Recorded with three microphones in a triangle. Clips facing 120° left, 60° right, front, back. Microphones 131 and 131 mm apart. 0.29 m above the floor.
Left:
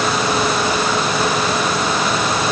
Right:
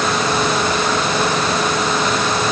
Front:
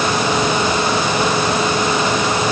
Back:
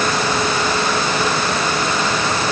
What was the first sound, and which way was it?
Only background noise.